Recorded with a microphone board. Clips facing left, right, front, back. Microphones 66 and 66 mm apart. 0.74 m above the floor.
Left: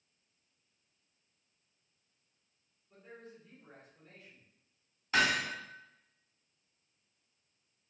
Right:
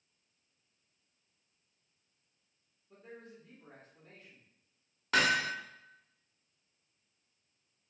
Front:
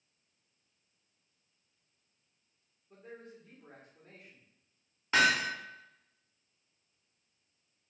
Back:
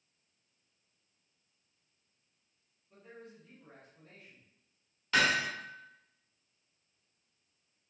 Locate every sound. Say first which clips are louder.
2.9 s a man speaking: right 1 dB, front 2 dB; 60° right, 1.5 m
5.1 s hammering: right 1 dB, front 2 dB; 70° right, 1.1 m